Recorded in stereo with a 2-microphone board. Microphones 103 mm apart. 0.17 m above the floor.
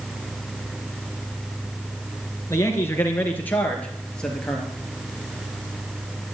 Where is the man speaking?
30° left (ahead or behind), 3 m; by 4.7 s 5° left (ahead or behind), 4 m.